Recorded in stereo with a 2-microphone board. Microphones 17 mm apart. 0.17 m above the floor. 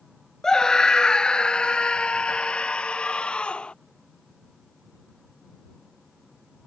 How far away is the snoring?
I don't hear snoring.